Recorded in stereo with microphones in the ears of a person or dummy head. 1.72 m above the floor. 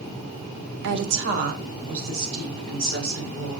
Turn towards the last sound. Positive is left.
turn(degrees=-60)  # may be behind; listen again after turning